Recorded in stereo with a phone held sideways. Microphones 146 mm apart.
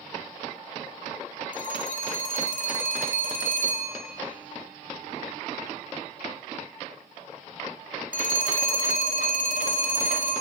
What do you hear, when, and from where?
1.5 s a phone ringing: 65° left (ahead or behind), 2 m